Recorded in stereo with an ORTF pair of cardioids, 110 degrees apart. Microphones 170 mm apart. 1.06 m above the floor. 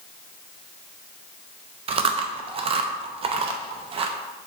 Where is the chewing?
35° right, 0.5 m.